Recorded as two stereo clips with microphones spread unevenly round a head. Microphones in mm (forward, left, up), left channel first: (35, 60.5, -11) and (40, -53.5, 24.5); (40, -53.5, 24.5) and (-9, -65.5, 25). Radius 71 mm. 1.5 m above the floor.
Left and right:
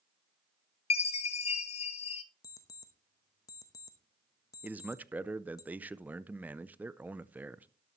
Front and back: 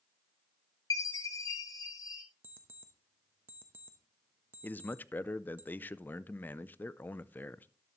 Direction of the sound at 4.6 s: 30° right.